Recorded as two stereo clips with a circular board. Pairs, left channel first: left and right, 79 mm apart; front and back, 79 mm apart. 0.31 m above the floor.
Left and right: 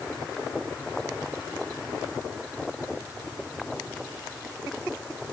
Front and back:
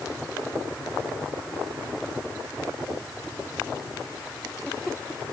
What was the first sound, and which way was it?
Only background noise.